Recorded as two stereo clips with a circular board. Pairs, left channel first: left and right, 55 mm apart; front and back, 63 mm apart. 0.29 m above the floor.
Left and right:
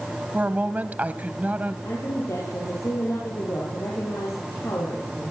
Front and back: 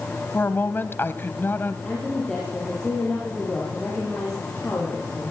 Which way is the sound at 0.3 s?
40° right.